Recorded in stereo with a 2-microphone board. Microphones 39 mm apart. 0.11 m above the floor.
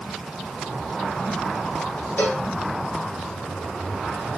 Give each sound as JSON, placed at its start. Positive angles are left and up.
{"t": 2.2, "sound": "a cowbell", "side_deg": 45, "distance_m": 1.1}